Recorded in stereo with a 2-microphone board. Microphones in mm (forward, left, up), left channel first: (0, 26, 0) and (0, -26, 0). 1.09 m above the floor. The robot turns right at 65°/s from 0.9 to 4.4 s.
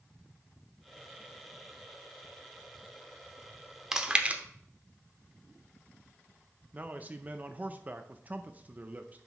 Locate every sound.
3.9 s chewing: 10° right (ahead or behind), 0.9 m; by 4.4 s 30° right (ahead or behind), 0.9 m
6.7 s a man speaking: 30° right (ahead or behind), 0.5 m